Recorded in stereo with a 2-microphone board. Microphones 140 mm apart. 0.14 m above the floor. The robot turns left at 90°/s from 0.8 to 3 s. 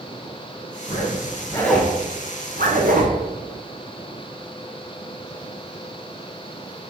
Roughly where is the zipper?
Left.